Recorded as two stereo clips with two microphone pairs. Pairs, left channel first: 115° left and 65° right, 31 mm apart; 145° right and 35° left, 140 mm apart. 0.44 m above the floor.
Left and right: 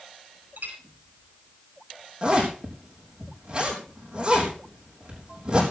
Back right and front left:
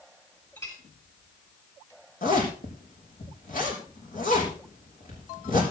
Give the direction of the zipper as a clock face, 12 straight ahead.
4 o'clock.